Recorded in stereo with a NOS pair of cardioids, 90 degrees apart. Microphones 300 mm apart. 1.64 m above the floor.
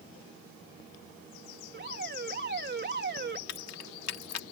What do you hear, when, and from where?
1.7 s an alarm: 35° right
3.5 s keys jangling: 60° left